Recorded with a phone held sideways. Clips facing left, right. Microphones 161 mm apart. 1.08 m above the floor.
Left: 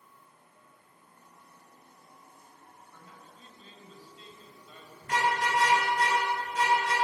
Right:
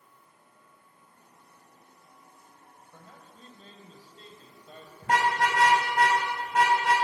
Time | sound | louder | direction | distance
2.9 | a man speaking | right 4 dB | 45° right (ahead or behind) | 5 m
5.0 | a car horn | right 3 dB | 85° right | 3.5 m